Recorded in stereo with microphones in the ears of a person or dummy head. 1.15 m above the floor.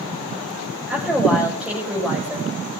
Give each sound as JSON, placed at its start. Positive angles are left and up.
{"t": 0.9, "sound": "a woman speaking", "side_deg": -5, "distance_m": 6.0}